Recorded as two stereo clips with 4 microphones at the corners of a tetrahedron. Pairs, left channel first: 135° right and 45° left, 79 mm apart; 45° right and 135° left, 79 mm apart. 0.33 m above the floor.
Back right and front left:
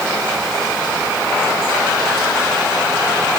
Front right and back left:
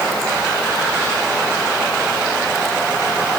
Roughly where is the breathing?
I don't hear breathing.